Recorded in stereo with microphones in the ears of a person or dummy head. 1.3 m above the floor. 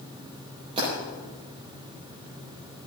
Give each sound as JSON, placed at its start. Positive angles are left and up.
{"t": 0.8, "sound": "breaking glass", "side_deg": -30, "distance_m": 8.0}